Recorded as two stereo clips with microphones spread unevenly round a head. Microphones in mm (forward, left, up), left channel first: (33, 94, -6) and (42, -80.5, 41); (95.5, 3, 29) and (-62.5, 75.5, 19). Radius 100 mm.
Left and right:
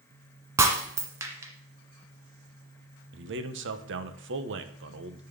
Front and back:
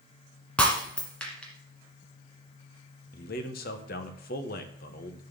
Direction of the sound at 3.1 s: 70° right.